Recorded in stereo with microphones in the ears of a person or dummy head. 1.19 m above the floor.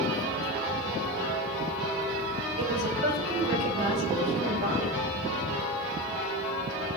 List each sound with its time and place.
2.6 s a woman speaking: 50° right (ahead or behind), 4.5 m